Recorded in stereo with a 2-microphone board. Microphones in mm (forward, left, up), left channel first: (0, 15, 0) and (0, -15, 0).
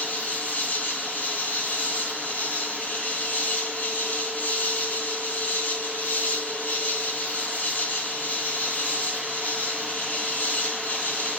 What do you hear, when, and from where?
0.0 s an insect: 85° left, 2.5 m